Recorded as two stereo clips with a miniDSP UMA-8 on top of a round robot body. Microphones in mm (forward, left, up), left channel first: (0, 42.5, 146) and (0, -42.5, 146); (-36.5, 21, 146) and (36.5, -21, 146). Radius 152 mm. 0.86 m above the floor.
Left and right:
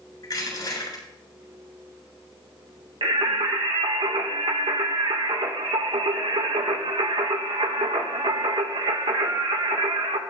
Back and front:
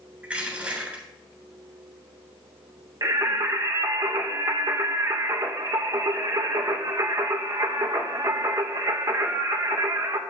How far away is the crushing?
About 8 m.